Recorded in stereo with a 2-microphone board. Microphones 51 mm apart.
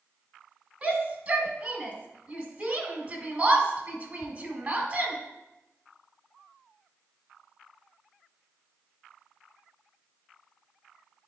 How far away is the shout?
About 1.6 m.